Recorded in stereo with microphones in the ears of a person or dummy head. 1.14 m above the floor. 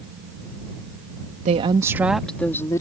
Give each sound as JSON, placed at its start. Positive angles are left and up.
{"t": 1.4, "sound": "a woman speaking", "side_deg": -40}